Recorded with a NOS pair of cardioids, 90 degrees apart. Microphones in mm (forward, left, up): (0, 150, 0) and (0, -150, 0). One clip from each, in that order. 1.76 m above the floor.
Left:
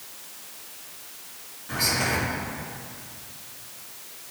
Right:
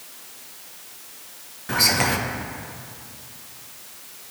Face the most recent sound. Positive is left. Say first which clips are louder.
# right 5 dB
turn(degrees=-60)